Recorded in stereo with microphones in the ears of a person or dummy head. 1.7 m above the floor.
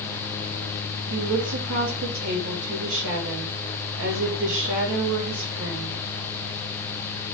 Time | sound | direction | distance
1.1 | a woman speaking | 80° right | 3 m